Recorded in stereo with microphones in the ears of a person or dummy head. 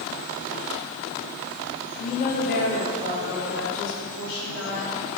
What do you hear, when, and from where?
2.0 s a woman speaking: 35° left (ahead or behind), 1.2 m; by 4.9 s 70° left (ahead or behind), 3.5 m